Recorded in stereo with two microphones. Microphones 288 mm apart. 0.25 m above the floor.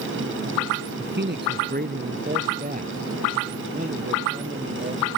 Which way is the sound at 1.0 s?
40° right (ahead or behind).